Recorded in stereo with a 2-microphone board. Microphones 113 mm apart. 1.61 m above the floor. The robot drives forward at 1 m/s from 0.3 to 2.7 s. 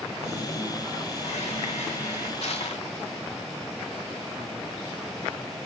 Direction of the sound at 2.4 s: 70° left (ahead or behind).